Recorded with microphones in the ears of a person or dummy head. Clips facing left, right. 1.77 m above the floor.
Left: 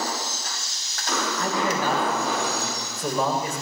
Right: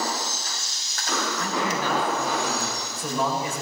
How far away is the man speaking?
About 8.5 m.